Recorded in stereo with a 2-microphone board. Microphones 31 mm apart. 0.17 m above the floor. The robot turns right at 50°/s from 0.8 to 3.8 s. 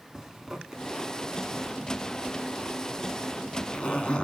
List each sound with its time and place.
0.1 s a zipper: 10° right (ahead or behind), 1.4 m; by 4.2 s 30° left (ahead or behind), 1.4 m